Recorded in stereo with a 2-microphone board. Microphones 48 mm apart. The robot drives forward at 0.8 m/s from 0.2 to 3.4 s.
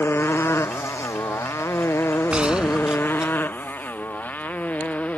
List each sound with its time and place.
0.0 s a motorcycle: 55° left (ahead or behind); by 5.2 s 30° left (ahead or behind)
2.3 s a gunshot: 20° right (ahead or behind); by 3.3 s 15° right (ahead or behind)